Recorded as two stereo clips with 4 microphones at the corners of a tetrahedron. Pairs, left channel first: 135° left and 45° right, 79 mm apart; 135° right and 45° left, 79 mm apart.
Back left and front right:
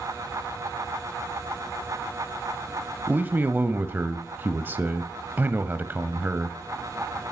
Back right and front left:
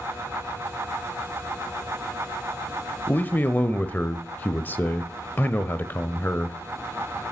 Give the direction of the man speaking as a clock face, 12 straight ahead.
3 o'clock.